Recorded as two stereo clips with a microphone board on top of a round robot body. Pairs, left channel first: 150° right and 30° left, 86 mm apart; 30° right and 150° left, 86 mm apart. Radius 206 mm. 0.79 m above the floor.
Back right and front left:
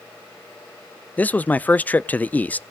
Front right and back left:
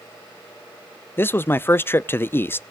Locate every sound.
1.2 s a man speaking: 85° right, 0.6 m